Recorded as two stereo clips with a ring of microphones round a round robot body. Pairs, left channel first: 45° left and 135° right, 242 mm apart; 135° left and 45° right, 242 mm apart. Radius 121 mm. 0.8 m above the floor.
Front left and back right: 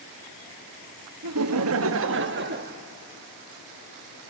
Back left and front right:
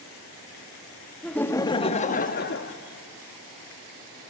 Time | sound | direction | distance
1.2 | laughter | 135° right | 1.0 m